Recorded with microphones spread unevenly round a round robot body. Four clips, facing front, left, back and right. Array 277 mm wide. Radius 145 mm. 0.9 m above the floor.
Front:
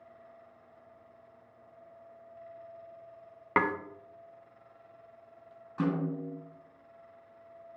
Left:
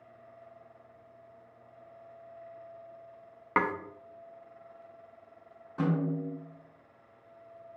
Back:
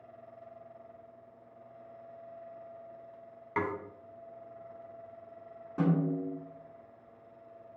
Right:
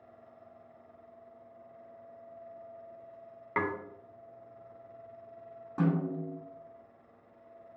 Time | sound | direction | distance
3.6 | dishes clattering | 30° left | 0.5 m
5.8 | a snare drum | 130° right | 2 m